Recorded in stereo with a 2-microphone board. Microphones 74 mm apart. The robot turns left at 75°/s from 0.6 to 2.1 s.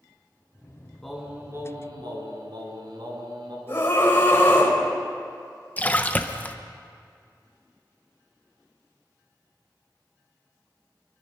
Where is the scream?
30° left (ahead or behind), 4.5 m.